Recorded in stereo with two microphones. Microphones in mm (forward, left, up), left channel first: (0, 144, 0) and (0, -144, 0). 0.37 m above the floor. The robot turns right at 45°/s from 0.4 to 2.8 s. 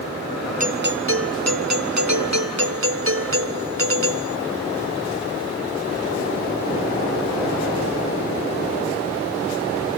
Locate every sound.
0.6 s a doorbell: 150° right; by 4.4 s 50° right